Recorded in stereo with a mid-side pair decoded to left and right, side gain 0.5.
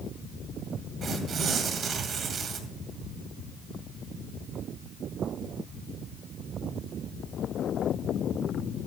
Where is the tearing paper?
50° right, 1.9 m.